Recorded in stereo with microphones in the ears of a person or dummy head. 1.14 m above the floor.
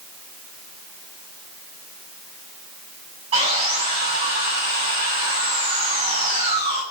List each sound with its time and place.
3.3 s sawing: 35° right (ahead or behind), 9 m